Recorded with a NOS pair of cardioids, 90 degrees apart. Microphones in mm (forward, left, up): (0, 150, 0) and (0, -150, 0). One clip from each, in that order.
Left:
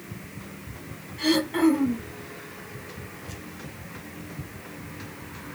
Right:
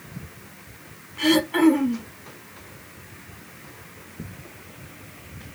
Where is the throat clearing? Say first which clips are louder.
Right 4 dB; 20° right, 1.4 m.